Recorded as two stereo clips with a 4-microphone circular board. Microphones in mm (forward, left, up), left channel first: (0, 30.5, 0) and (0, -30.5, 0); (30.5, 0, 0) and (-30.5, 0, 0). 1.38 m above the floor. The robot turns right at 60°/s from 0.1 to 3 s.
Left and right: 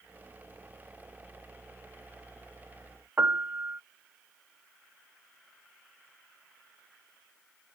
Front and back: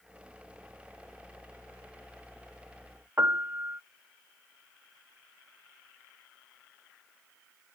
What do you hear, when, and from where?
3.2 s a piano: 135° right